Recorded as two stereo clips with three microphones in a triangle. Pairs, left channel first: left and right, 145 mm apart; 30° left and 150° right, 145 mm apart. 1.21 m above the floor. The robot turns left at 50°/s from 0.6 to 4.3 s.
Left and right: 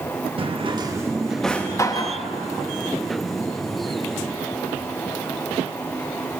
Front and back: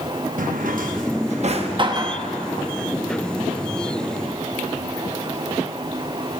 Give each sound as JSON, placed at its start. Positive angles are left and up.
{"t": 0.4, "sound": "a drawer", "azimuth_deg": -140, "distance_m": 0.9}